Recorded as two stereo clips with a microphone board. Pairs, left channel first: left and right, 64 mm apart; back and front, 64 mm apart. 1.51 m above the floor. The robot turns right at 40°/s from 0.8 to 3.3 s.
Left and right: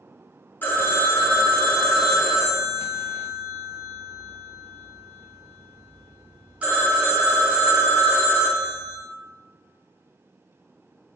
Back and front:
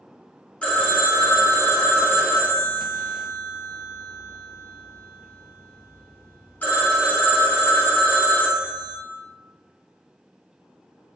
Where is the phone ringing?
120° left, 0.7 m; by 9.0 s 140° right, 0.7 m.